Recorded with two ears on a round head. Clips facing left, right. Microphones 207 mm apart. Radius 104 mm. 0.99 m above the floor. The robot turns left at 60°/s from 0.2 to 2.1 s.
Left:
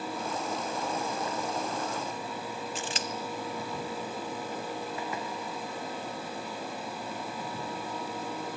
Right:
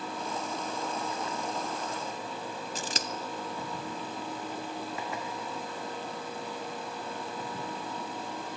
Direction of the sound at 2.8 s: 35° right (ahead or behind).